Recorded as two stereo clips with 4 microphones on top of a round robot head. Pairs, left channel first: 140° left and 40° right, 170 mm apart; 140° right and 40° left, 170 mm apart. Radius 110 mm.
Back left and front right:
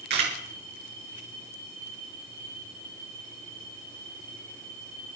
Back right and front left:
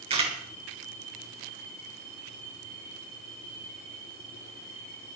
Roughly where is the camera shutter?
Ahead.